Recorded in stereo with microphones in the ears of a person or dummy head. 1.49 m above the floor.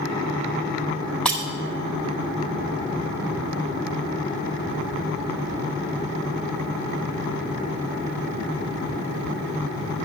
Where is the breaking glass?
Centre (ahead or behind), 0.7 m.